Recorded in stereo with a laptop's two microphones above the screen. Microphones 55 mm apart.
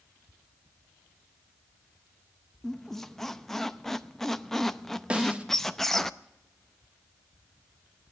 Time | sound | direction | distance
2.6 | a squeak | 5° left (ahead or behind) | 0.6 m
5.1 | a snare drum | 25° right (ahead or behind) | 1.2 m